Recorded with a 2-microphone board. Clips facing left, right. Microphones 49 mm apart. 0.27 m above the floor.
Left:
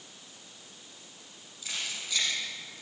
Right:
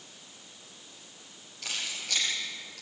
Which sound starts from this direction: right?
Keys jangling, at 1.6 s.